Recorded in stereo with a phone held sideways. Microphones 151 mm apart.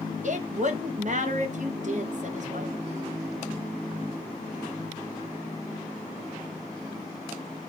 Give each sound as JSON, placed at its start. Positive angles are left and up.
{"t": 0.2, "sound": "a woman speaking", "side_deg": -55, "distance_m": 1.2}